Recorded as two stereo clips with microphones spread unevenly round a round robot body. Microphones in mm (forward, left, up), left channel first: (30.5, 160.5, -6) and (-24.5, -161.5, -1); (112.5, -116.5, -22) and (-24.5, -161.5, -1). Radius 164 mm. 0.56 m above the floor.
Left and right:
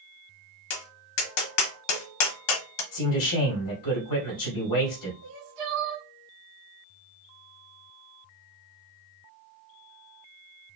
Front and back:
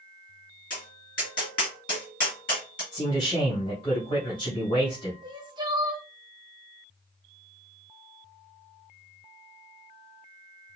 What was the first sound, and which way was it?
Tapping, 80° left.